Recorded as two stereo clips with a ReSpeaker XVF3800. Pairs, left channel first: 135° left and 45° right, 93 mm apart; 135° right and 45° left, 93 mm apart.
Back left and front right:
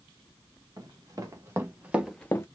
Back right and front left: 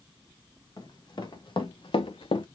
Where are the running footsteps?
95° right, 2 m; by 2.5 s 165° right, 0.7 m.